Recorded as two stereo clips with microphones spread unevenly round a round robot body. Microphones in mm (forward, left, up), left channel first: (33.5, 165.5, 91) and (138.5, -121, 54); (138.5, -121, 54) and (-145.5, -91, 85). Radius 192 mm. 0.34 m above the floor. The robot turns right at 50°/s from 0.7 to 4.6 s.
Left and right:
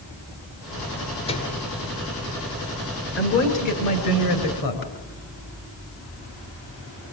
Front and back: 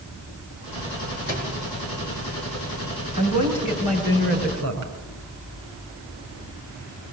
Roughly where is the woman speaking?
Ahead left.